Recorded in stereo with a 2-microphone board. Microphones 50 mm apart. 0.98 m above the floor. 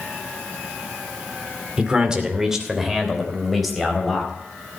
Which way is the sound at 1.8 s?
20° right (ahead or behind).